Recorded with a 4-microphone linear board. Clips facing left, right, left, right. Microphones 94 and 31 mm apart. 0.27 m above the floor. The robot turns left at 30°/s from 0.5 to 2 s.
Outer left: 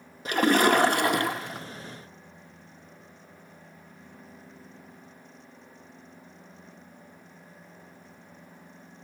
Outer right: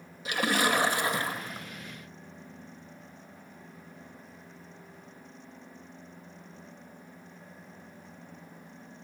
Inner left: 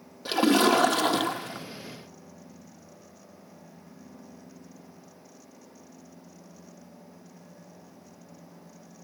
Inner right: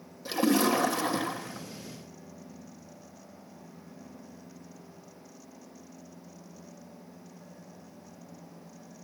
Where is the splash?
135° left, 1.4 m; by 1.7 s 100° left, 1.4 m.